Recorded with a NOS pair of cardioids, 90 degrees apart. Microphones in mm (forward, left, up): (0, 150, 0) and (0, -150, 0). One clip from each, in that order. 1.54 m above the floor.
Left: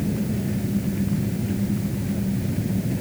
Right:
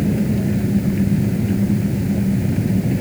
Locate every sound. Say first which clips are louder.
0.0 s an engine running: right 6 dB; 45° right